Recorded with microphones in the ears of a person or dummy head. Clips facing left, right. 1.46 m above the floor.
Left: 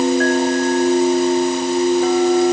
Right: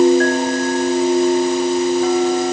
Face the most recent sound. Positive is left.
No sound to turn to.